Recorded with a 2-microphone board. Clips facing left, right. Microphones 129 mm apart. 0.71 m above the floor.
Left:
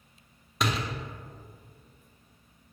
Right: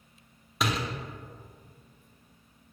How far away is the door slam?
About 0.6 m.